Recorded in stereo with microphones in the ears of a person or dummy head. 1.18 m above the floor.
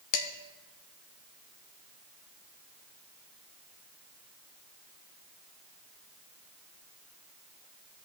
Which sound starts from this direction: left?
Dishes clattering, at 0.1 s.